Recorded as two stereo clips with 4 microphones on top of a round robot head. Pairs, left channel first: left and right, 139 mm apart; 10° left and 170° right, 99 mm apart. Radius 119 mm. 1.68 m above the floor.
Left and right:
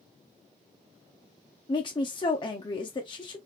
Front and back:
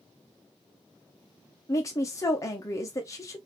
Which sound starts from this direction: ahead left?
A woman speaking, at 1.7 s.